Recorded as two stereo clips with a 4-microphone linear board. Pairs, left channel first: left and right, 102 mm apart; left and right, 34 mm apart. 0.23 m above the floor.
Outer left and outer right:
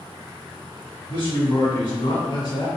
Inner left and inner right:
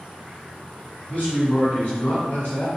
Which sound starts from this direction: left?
A man speaking, at 1.1 s.